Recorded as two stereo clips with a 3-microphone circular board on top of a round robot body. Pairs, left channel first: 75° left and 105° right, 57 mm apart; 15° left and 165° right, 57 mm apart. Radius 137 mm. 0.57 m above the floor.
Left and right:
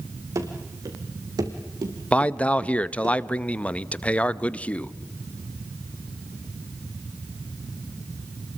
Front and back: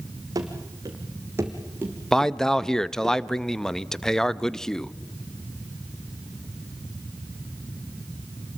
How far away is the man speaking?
About 0.9 m.